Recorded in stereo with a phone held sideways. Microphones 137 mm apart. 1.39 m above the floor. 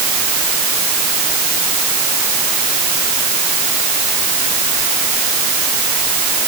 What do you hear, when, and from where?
Only background noise.